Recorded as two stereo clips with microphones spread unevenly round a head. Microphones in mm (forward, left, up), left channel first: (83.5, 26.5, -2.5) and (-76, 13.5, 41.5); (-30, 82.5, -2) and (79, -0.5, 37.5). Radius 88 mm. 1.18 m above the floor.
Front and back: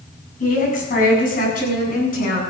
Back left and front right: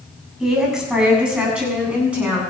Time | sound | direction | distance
0.4 | a woman speaking | 45° left | 7.5 m